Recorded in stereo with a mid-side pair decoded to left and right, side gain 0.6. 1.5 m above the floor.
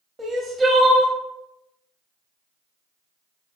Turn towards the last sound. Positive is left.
turn(degrees=-25)